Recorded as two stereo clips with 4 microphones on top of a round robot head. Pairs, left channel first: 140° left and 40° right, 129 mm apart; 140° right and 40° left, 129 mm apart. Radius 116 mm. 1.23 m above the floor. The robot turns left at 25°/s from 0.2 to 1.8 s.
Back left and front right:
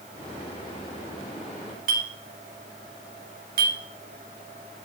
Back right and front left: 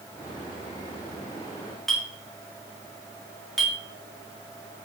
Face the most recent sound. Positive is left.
turn(degrees=-50)